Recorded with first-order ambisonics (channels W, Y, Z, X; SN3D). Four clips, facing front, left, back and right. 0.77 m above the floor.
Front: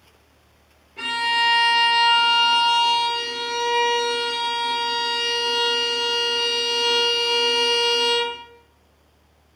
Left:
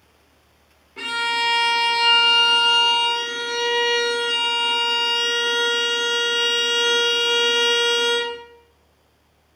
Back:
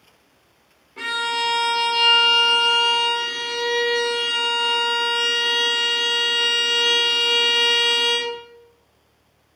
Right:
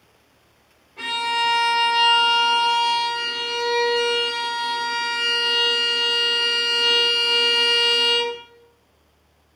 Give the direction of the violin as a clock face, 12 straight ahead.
8 o'clock.